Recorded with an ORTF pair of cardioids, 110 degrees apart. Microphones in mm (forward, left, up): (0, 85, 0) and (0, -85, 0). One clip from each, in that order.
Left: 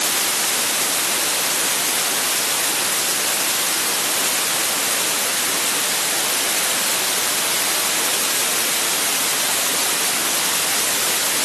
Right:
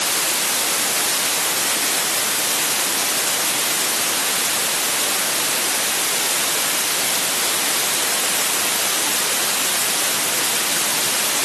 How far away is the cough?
I don't hear a cough.